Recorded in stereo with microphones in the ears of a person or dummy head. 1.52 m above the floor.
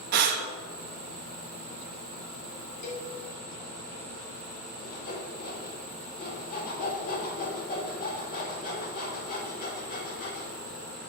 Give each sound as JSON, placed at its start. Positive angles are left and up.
{"t": 0.1, "sound": "breathing", "side_deg": -50, "distance_m": 1.1}
{"t": 2.8, "sound": "a cowbell", "side_deg": 50, "distance_m": 2.5}
{"t": 4.8, "sound": "sawing", "side_deg": 45, "distance_m": 2.5}